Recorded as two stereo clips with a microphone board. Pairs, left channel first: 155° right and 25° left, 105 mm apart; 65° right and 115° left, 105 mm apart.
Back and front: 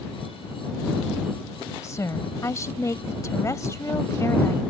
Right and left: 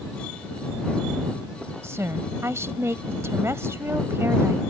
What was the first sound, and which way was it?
A woman speaking, 160° left.